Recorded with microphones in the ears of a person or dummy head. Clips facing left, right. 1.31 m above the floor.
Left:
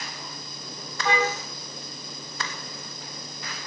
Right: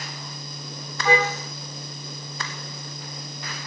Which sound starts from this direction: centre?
A car horn, at 1.1 s.